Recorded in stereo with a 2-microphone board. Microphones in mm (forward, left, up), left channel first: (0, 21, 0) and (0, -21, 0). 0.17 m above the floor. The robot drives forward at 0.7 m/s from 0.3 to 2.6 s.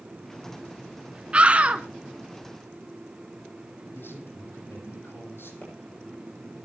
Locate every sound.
1.3 s a scream: 30° right (ahead or behind), 1.7 m; by 1.9 s 35° right (ahead or behind), 1.6 m
3.9 s a man speaking: 65° left (ahead or behind), 8 m
5.6 s a pop: 35° left (ahead or behind), 10 m